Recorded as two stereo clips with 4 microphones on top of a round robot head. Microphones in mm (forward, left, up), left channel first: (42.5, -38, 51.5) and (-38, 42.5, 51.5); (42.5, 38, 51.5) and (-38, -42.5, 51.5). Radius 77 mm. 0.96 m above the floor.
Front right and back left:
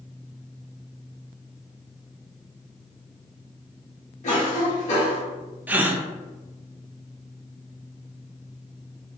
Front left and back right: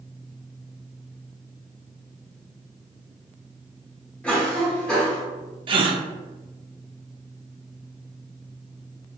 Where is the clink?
I don't hear a clink.